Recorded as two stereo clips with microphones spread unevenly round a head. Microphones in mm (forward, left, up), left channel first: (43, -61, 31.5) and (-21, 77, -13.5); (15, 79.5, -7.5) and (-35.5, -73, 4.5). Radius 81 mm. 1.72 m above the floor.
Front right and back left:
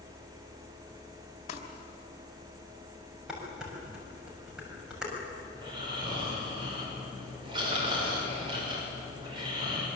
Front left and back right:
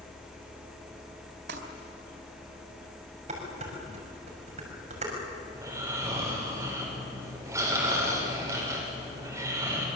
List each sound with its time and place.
1.5 s crumpling: 100° right, 3.5 m
3.3 s dishes clattering: 155° right, 6.5 m
5.5 s snoring: straight behind, 6.5 m